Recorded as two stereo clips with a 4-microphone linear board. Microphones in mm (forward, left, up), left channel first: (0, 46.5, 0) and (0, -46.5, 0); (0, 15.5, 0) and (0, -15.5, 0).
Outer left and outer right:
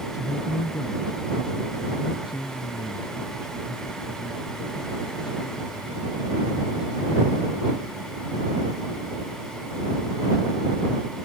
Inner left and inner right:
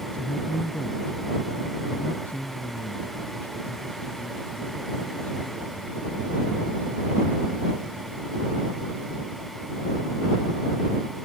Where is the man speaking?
40° left (ahead or behind); by 8.6 s 50° left (ahead or behind).